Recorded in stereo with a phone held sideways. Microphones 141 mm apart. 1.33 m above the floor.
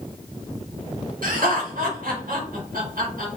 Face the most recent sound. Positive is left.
turn(degrees=-85)